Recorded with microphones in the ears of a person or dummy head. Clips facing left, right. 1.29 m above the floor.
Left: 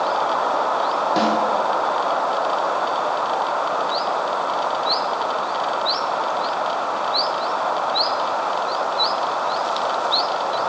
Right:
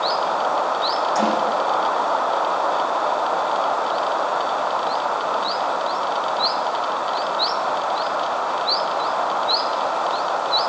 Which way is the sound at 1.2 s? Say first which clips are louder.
Left 1 dB; 45° left (ahead or behind).